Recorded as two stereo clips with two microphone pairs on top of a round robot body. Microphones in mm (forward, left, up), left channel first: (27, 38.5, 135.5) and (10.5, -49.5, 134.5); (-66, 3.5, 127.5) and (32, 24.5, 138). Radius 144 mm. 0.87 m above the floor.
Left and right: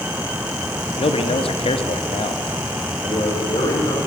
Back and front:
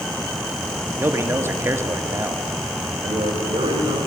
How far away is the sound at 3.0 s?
About 6.5 m.